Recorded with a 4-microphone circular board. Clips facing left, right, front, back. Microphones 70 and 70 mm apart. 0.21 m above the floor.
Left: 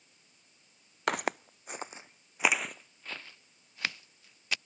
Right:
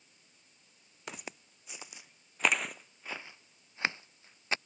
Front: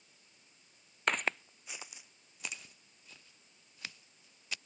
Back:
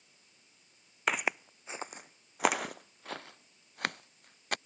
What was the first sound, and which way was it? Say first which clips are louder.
Footsteps: left 14 dB, back 1 dB; 95° left.